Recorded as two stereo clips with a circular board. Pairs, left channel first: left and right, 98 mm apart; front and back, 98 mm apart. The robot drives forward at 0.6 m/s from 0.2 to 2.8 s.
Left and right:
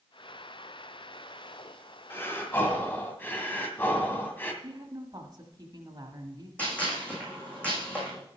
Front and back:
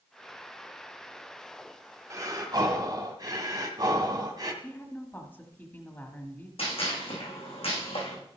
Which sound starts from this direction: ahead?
A gunshot, at 6.6 s.